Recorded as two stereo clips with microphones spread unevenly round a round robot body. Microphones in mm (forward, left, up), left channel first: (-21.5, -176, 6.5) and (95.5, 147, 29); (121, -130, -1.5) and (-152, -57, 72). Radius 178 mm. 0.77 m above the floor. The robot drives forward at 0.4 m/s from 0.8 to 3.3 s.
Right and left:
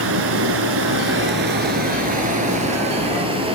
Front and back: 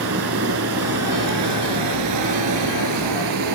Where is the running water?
125° left, 1.7 m; by 3.5 s 145° left, 2.5 m.